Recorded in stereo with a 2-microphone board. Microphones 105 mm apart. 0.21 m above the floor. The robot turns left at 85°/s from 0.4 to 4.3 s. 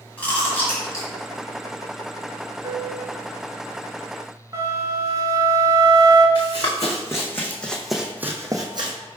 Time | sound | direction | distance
0.2 | chewing | 15° left (ahead or behind) | 1.6 m
2.6 | a piano | 145° right | 0.6 m
4.5 | a flute | 35° right (ahead or behind) | 0.9 m
6.3 | running footsteps | 40° left (ahead or behind) | 1.2 m